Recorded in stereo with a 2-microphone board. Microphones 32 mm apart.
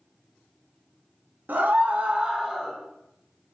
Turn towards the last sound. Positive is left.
turn(degrees=-10)  # may be behind; listen again after turning